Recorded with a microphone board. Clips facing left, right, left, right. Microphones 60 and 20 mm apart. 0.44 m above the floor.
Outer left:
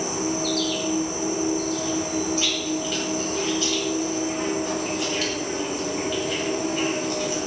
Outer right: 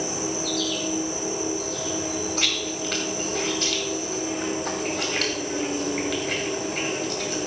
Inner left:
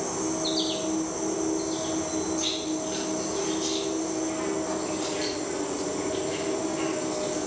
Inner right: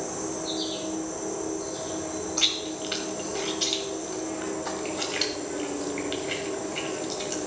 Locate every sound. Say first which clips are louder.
0.0 s an insect: outer left 3 dB, inner left 3 dB; 70° left (ahead or behind), 3 m
2.4 s chewing: outer left 2 dB, inner right 2 dB; 60° right (ahead or behind), 1.8 m